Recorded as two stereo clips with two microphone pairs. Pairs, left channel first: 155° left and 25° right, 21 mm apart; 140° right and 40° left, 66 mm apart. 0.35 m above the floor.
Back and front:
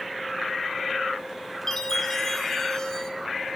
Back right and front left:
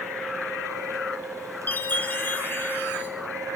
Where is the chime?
170° right, 1.2 m.